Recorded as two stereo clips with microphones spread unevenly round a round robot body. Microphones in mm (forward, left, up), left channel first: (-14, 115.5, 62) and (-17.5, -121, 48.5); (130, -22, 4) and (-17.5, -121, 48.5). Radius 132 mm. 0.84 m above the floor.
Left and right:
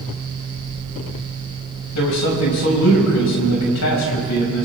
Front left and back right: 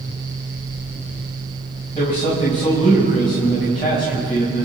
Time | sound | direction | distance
1.9 | a man speaking | 105° left | 5.5 m